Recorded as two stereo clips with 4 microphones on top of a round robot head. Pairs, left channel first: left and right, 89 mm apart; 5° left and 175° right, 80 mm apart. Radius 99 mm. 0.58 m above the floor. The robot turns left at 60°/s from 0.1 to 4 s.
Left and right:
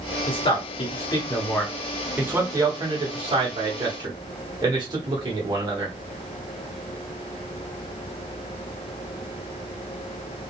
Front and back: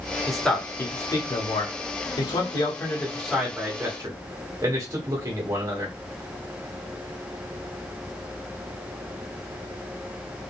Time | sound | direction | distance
0.3 | a man speaking | 100° left | 1.7 m